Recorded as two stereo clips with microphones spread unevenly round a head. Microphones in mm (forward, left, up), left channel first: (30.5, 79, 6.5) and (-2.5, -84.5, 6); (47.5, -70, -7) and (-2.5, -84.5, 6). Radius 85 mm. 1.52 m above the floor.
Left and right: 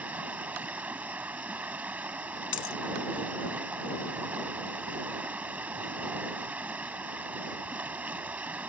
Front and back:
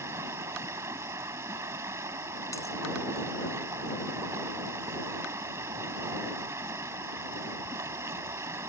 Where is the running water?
175° left.